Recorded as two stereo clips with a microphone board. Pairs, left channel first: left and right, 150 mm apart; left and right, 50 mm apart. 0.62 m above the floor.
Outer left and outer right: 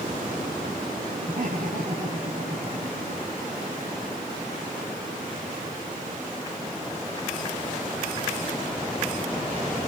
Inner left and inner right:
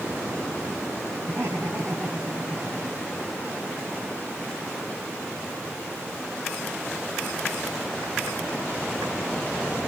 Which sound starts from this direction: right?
Laughter, at 1.3 s.